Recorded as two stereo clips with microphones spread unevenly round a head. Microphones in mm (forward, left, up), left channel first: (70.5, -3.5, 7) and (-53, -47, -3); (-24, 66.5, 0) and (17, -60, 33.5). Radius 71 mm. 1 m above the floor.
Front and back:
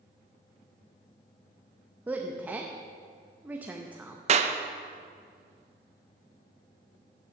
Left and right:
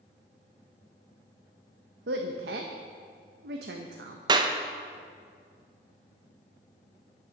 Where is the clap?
135° right, 0.6 m.